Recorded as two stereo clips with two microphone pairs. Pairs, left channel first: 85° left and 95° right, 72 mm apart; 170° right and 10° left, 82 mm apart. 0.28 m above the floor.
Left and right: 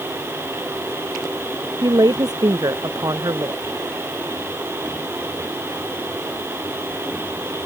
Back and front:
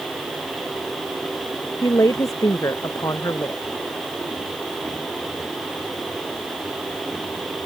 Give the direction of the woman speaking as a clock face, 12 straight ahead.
4 o'clock.